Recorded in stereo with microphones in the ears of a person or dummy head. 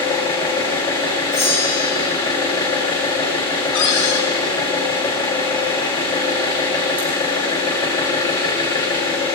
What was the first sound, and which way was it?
An engine running, 25° left (ahead or behind).